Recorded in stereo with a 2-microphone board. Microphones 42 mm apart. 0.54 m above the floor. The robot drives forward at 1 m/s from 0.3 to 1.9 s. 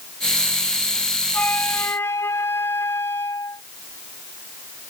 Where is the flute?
45° left (ahead or behind); by 3.6 s 75° left (ahead or behind).